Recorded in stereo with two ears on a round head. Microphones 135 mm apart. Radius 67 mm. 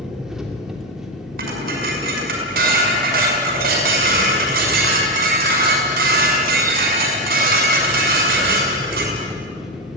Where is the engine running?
5° right (ahead or behind), 2.5 m.